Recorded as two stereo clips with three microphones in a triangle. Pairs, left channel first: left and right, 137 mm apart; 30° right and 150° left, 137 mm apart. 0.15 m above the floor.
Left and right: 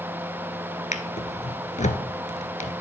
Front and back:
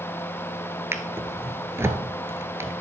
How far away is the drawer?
About 0.8 m.